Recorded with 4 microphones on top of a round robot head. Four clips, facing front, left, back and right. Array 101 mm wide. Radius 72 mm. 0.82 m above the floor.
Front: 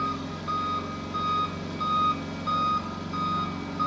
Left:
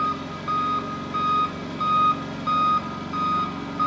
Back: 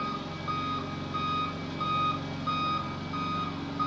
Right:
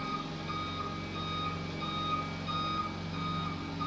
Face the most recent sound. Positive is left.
turn(degrees=90)